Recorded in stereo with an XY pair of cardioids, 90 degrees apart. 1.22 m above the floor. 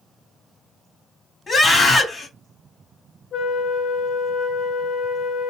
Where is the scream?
40° left, 2 m.